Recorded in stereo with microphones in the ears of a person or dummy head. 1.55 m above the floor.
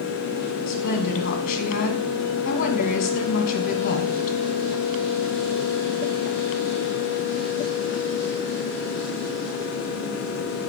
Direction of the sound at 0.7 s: 50° left (ahead or behind).